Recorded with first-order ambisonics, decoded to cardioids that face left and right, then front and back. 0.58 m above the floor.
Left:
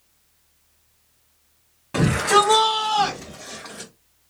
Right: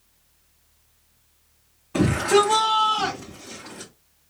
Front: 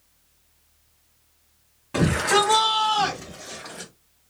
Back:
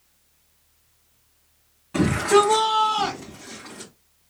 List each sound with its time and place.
1.9 s a shout: 65° left, 2.5 m; by 3.9 s 40° left, 3 m